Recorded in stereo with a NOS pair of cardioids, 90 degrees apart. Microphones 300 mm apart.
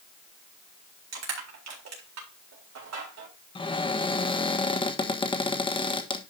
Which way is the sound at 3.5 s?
15° left.